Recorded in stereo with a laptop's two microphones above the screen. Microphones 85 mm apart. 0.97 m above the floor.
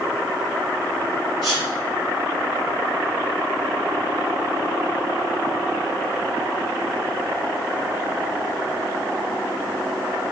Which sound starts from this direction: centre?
A sneeze, at 1.4 s.